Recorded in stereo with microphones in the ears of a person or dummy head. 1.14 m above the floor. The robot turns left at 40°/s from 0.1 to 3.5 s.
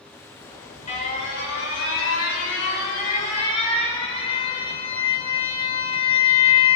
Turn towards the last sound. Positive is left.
turn(degrees=35)